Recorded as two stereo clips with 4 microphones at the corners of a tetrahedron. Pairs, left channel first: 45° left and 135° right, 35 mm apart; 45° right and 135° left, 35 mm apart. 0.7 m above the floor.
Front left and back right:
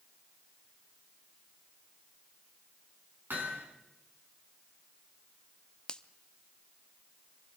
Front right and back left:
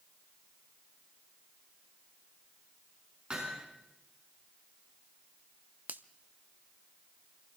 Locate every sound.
3.3 s hammering: 160° right, 4.5 m
5.9 s a finger snap: 110° left, 0.6 m